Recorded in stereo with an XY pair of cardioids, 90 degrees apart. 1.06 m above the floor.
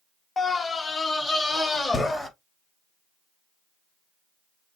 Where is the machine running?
No machine running in this recording.